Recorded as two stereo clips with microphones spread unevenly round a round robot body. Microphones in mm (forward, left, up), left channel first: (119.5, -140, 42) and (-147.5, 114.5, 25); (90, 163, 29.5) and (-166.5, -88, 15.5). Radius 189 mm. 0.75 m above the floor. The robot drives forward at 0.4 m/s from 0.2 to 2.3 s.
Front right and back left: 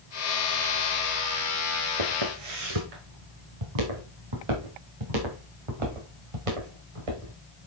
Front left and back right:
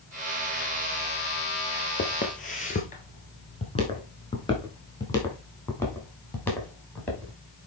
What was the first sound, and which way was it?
Footsteps, 110° left.